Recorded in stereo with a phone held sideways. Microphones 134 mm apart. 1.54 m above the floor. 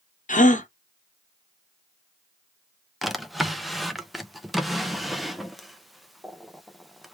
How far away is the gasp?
About 1.1 m.